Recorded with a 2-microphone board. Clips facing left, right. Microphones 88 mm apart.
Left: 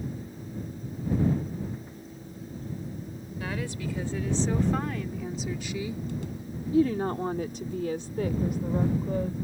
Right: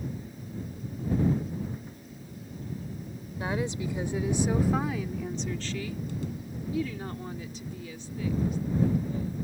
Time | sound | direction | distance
3.4 | a woman speaking | 25° right (ahead or behind) | ?